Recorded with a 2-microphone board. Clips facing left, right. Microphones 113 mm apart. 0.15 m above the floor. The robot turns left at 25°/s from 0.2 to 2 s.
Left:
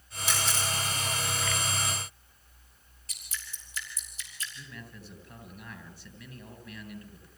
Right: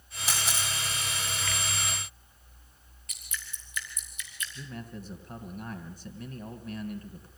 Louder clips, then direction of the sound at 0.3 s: Left 2 dB; centre (ahead or behind).